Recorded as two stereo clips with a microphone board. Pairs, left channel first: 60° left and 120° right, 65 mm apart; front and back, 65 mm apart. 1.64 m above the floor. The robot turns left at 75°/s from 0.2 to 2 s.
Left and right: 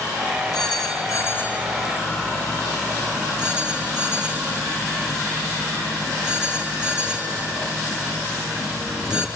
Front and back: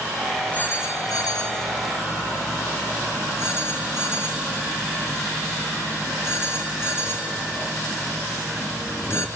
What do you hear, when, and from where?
0.5 s a phone ringing: 65° left, 4 m; by 9.3 s 45° right, 4 m